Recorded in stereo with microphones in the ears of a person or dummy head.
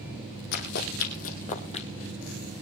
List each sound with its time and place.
0.5 s running footsteps: 55° left (ahead or behind), 3 m; by 1.9 s 30° left (ahead or behind), 2.5 m